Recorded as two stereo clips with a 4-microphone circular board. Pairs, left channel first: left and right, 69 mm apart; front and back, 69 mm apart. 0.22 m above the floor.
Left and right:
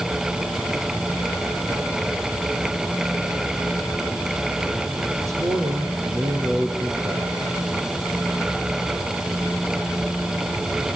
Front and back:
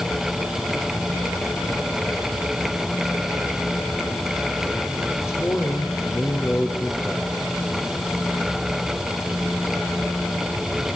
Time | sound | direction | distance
5.2 | a man speaking | 50° right | 4.5 m